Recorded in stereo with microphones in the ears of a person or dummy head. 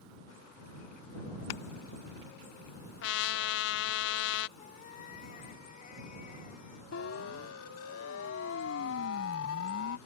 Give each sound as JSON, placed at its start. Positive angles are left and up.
{"t": 3.0, "sound": "a trumpet", "side_deg": 60}
{"t": 4.6, "sound": "a cat meowing", "side_deg": 50}
{"t": 6.9, "sound": "a siren", "side_deg": 85}